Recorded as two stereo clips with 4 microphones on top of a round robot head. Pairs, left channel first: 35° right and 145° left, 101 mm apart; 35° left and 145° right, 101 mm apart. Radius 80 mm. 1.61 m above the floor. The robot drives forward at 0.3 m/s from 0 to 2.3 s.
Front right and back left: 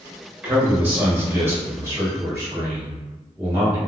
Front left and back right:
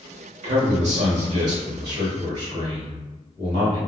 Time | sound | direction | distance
0.4 | a man speaking | 140° right | 1.0 m